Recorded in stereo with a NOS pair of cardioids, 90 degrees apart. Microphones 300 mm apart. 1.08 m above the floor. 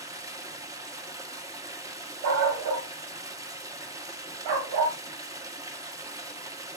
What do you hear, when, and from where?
0.0 s running water: 10° right, 1.5 m
2.2 s a dog barking: 70° right, 2.5 m